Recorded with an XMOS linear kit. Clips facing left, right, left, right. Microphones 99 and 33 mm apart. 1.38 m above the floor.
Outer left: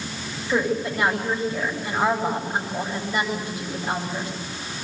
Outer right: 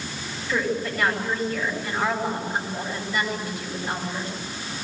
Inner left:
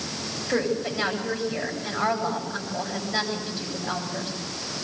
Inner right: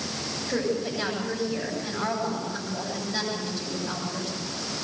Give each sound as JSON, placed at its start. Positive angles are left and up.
{"t": 0.5, "sound": "a woman speaking", "side_deg": 15, "distance_m": 8.0}